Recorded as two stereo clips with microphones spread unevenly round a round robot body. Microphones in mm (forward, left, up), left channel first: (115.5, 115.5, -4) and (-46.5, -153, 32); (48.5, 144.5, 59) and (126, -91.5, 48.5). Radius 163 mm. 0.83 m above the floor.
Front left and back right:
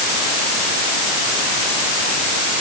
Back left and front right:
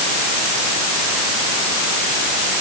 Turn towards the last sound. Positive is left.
No sound to turn to.